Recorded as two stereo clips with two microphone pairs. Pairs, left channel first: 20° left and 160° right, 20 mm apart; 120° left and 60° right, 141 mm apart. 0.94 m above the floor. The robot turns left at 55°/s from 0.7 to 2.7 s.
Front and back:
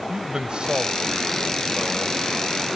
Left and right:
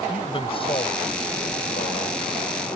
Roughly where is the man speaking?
Behind.